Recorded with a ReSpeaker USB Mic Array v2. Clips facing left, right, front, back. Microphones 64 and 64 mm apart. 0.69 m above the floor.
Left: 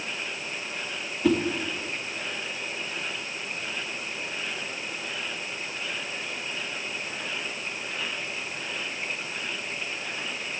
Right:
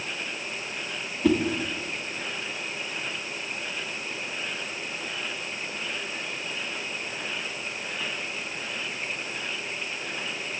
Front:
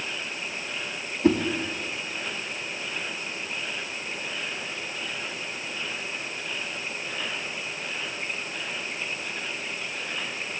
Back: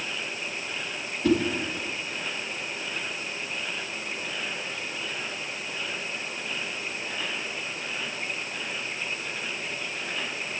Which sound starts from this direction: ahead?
A whoosh, at 1.2 s.